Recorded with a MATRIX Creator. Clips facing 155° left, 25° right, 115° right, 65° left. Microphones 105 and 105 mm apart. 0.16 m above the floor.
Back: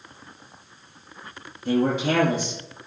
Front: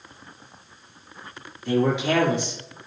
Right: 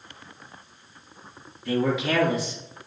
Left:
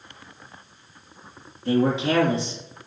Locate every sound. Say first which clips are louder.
1.6 s a man speaking: even, left 3 dB; 125° left, 2.5 m